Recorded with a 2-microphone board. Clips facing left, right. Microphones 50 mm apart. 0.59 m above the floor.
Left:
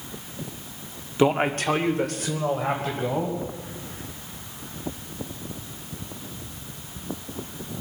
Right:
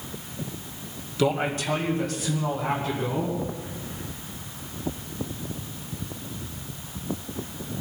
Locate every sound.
1.2 s a man speaking: 30° left (ahead or behind), 0.9 m; by 3.4 s 60° left (ahead or behind), 3.5 m